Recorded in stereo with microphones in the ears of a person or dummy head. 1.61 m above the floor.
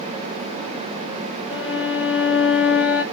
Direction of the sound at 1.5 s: Centre (ahead or behind).